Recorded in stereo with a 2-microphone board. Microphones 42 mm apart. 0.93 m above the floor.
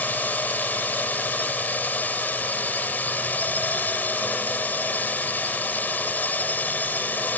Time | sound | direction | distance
0.0 | a drone | 45° left (ahead or behind) | ?